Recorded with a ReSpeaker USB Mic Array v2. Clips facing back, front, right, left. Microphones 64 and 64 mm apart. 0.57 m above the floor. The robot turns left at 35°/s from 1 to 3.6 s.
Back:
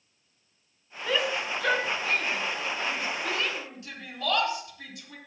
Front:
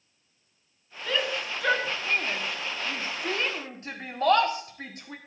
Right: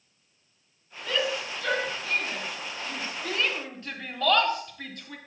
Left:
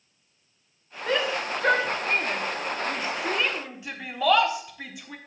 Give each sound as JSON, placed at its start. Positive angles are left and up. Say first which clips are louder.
{"t": 1.1, "sound": "a shout", "louder": "back 1 dB, left 3 dB", "azimuth_deg": 105, "distance_m": 1.6}